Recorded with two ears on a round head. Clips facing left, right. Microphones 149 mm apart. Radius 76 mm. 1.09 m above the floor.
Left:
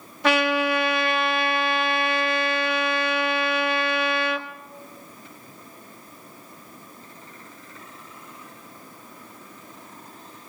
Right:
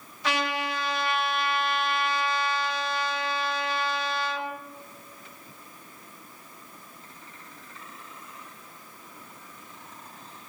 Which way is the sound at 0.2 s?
45° left (ahead or behind).